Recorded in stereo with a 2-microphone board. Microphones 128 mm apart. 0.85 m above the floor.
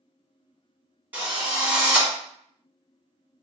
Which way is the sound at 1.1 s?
15° right (ahead or behind).